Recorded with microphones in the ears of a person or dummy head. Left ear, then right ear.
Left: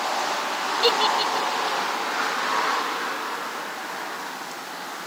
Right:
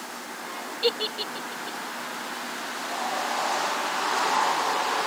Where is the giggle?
5° left (ahead or behind).